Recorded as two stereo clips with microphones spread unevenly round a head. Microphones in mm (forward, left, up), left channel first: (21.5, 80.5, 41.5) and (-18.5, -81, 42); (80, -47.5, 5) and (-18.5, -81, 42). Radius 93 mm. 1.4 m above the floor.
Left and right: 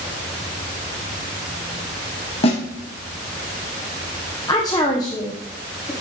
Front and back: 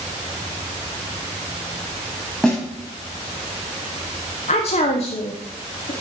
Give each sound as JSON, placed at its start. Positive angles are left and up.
{"t": 2.4, "sound": "a snare drum", "azimuth_deg": 125, "distance_m": 1.7}
{"t": 4.5, "sound": "a woman speaking", "azimuth_deg": 5, "distance_m": 0.9}